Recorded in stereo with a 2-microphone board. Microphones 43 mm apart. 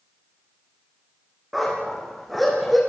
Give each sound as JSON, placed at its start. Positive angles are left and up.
{"t": 1.5, "sound": "a dog barking", "side_deg": 0, "distance_m": 9.0}